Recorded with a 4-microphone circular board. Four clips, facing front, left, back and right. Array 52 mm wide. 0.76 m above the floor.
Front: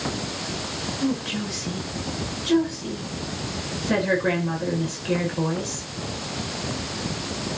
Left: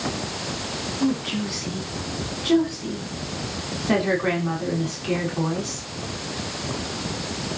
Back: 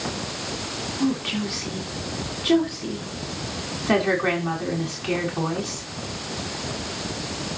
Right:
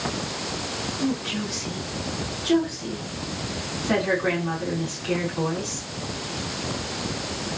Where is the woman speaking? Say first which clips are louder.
Left 3 dB, back 2 dB; 165° left, 6.5 m.